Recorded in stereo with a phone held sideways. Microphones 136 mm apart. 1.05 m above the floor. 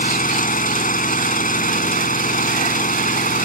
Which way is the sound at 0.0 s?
85° left.